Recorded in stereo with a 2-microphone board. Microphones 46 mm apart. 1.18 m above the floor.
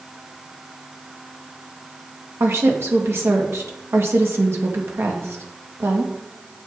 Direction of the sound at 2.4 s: 70° right (ahead or behind).